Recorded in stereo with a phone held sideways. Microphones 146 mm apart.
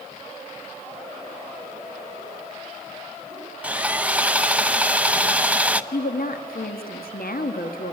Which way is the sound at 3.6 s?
10° right (ahead or behind).